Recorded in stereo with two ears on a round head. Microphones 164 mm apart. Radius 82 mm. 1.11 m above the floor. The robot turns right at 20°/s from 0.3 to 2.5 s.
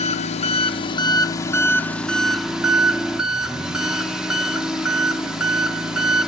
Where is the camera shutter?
I don't hear a camera shutter.